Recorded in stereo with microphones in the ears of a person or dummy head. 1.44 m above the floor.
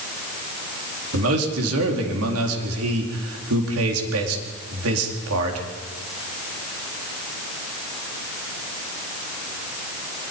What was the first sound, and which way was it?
A man speaking, 85° right.